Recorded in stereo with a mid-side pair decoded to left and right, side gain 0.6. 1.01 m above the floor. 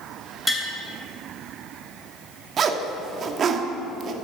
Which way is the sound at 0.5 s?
15° left.